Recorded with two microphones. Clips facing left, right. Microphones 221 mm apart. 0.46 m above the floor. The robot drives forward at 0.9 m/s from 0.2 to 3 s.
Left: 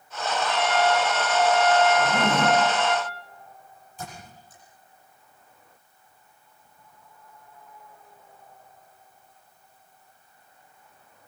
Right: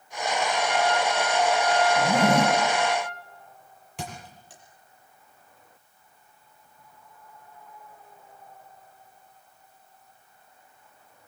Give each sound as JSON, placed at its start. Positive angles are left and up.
{"t": 0.5, "sound": "a trumpet", "side_deg": 75, "distance_m": 5.0}
{"t": 2.0, "sound": "a zipper", "side_deg": -65, "distance_m": 3.0}
{"t": 4.0, "sound": "a thud", "side_deg": -85, "distance_m": 6.0}